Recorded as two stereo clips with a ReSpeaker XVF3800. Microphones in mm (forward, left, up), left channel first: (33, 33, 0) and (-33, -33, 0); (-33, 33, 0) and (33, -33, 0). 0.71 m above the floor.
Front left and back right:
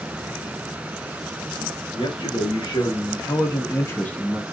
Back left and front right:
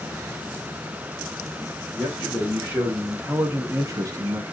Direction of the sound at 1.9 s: 25° left.